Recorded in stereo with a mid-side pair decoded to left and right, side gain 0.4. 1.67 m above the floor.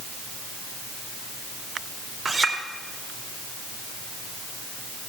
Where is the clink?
55° right, 2.5 m.